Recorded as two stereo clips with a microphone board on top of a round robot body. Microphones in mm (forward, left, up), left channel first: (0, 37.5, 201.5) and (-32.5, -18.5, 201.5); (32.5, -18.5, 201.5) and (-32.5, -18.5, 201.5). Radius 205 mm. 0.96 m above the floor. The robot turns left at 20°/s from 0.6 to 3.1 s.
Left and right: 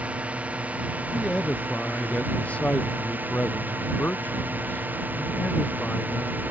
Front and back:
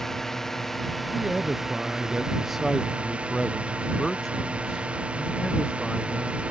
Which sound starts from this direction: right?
A drone, at 0.0 s.